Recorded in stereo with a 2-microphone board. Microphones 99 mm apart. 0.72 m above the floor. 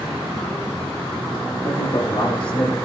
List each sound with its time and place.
1.6 s a man speaking: 65° left (ahead or behind), 9.5 m